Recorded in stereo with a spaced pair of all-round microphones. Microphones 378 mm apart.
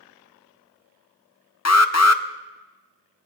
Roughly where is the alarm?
Left.